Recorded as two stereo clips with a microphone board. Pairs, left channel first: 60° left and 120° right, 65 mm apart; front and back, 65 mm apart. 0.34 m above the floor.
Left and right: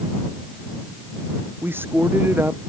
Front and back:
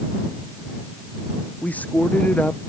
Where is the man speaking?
65° right.